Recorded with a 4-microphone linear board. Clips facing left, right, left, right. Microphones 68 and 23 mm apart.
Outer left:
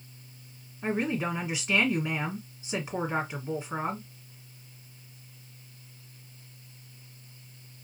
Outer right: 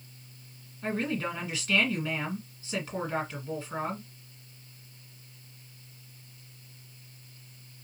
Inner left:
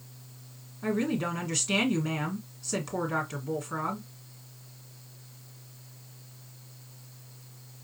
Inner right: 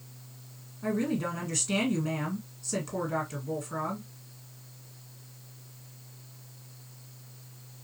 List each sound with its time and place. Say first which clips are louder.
0.8 s a woman speaking: outer left 2 dB, inner left 1 dB; 20° left (ahead or behind), 1.8 m